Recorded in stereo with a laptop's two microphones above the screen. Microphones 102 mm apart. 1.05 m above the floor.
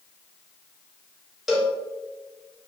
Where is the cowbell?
5° right (ahead or behind), 0.6 m.